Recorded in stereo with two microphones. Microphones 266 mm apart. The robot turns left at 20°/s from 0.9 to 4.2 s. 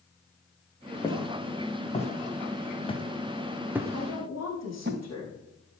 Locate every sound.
1.0 s footsteps: 15° left (ahead or behind), 4 m; by 4.9 s 45° right (ahead or behind), 2 m
3.9 s a woman speaking: 65° left (ahead or behind), 7.5 m; by 5.4 s 70° left (ahead or behind), 7.5 m